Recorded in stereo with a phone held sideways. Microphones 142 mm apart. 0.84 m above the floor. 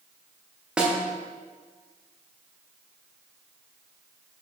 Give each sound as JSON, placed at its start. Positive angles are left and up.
{"t": 0.8, "sound": "a snare drum", "side_deg": -5, "distance_m": 0.7}